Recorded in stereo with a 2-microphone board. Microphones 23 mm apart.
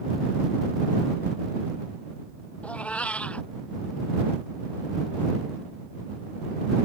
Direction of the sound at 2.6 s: 75° left (ahead or behind).